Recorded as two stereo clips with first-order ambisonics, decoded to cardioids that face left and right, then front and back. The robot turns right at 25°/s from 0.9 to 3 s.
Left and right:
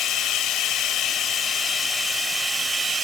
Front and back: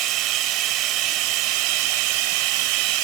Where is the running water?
150° left, 0.7 m; by 3.0 s 160° right, 0.7 m.